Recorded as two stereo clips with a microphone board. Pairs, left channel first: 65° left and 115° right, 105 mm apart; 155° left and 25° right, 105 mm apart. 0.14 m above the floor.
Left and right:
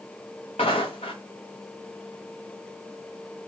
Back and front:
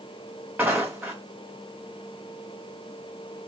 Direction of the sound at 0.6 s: 55° left.